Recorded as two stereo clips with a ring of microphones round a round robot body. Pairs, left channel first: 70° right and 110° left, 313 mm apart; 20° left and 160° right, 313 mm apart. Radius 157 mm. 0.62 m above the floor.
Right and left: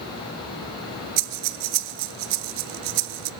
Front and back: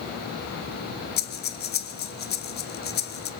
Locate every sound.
1.2 s breathing: 85° left, 0.6 m